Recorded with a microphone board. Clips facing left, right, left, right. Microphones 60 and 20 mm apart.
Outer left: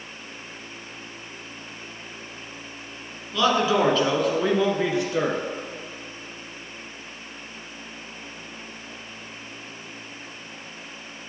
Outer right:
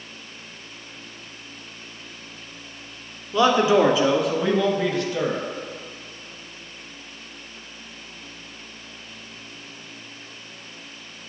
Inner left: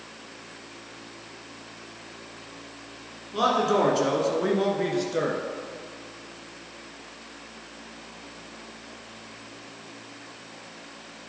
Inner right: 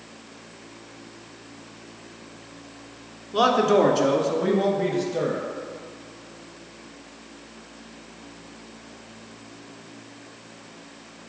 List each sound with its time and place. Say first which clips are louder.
3.3 s a man speaking: outer right 4 dB, inner right 4 dB; 25° right (ahead or behind), 1.4 m; by 5.4 s 30° left (ahead or behind), 1.7 m